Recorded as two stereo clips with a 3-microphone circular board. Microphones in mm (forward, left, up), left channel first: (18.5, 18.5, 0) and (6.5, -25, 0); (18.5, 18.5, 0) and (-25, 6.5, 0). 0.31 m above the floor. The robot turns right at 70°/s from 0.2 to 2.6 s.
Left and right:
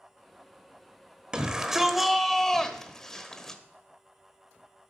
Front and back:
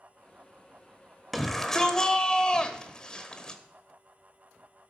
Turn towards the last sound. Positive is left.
turn(degrees=20)